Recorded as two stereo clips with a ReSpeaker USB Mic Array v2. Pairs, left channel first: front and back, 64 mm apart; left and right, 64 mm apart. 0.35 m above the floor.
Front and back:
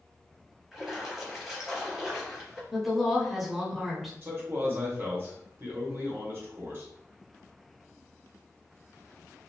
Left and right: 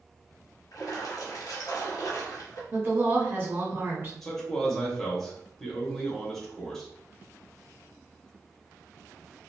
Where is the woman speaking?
95° right, 0.9 m.